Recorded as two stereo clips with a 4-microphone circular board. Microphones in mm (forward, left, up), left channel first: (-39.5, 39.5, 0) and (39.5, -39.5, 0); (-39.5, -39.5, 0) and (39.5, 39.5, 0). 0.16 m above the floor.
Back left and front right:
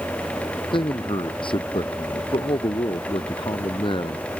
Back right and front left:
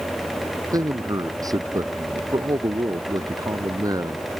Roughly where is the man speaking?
Left.